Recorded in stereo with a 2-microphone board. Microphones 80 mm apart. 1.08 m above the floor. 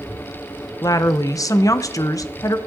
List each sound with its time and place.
0.8 s a woman speaking: 45° left (ahead or behind), 0.5 m